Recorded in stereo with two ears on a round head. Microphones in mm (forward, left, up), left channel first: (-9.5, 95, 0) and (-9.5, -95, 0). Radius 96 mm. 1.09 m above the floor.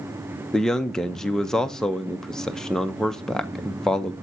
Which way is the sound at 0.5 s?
Centre (ahead or behind).